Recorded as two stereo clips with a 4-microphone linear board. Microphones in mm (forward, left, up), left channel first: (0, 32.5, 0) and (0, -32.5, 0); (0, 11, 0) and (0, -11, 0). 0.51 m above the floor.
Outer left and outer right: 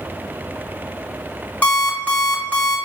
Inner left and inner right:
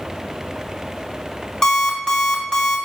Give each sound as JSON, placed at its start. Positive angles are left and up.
{"t": 1.6, "sound": "an alarm clock", "side_deg": 25, "distance_m": 1.0}